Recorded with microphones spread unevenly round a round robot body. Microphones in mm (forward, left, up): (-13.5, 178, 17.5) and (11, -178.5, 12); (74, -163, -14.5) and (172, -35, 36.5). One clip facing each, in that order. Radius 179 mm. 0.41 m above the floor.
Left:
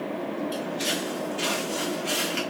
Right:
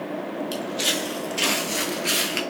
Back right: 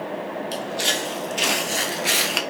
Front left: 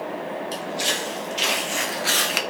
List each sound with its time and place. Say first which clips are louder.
0.5 s footsteps: right 1 dB, back right 1 dB; 95° right, 1.1 m; by 2.4 s 10° right, 0.5 m